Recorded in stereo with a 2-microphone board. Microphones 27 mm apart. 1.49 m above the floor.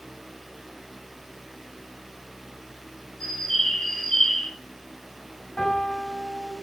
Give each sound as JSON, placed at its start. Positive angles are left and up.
{"t": 3.2, "sound": "a bird", "side_deg": 10, "distance_m": 1.2}
{"t": 5.6, "sound": "a piano", "side_deg": 40, "distance_m": 1.5}